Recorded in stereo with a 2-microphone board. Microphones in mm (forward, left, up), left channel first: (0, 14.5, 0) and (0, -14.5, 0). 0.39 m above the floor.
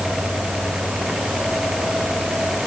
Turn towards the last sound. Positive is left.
No sound to turn to.